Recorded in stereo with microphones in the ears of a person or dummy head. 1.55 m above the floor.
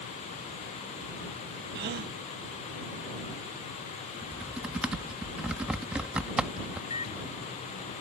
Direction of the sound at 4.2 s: 5° right (ahead or behind).